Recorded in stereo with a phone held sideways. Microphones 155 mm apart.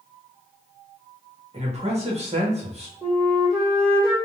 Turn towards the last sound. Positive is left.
turn(degrees=-40)  # may be behind; listen again after turning